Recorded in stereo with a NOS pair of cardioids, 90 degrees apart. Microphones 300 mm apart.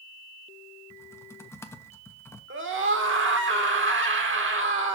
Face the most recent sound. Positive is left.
turn(degrees=-40)